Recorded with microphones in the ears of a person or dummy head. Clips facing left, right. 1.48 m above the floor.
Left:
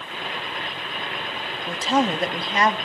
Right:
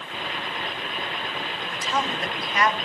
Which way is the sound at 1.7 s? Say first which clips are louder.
Left 8 dB; 30° left (ahead or behind).